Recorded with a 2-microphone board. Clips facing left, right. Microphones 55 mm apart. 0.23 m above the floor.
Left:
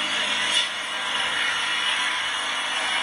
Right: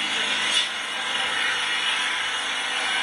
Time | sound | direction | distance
0.0 | an engine running | 5° right (ahead or behind) | 1.2 m